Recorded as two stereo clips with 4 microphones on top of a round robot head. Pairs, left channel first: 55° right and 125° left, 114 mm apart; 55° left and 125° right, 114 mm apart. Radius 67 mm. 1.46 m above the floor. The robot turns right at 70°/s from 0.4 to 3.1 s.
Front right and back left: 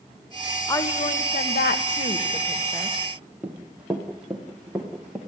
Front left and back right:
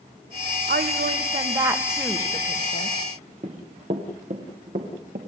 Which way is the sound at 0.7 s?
125° right.